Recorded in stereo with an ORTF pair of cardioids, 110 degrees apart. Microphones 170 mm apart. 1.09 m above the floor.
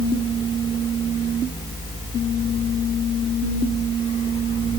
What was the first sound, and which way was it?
A fan, 35° left.